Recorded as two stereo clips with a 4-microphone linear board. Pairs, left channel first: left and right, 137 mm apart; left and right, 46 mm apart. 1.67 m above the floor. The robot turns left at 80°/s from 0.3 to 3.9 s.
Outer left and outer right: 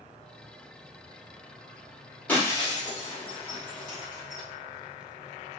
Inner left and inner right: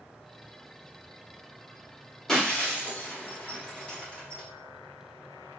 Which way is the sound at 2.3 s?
10° left (ahead or behind).